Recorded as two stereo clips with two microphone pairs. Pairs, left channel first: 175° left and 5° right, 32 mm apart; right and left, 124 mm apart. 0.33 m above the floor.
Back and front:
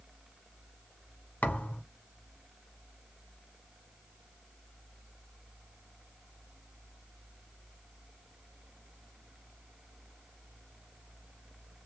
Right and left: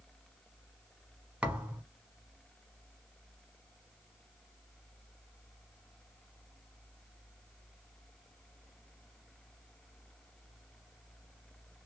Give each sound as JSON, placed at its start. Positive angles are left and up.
{"t": 1.4, "sound": "a thud", "azimuth_deg": 170, "distance_m": 1.0}